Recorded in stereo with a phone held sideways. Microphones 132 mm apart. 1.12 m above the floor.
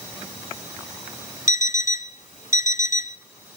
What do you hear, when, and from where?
1.5 s an alarm clock: 70° left (ahead or behind), 0.9 m